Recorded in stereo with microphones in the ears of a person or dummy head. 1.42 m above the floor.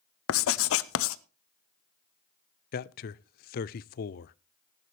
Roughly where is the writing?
Left.